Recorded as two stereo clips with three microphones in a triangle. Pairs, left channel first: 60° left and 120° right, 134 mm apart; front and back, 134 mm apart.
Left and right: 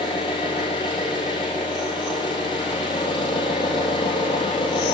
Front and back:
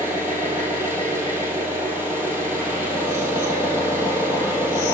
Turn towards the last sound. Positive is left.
turn(degrees=110)